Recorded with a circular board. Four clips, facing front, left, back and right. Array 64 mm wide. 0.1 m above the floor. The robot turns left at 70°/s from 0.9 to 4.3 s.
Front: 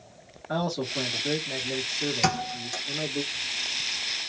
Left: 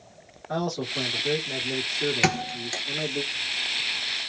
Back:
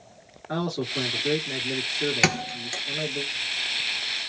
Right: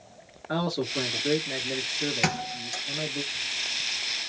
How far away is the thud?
About 0.9 m.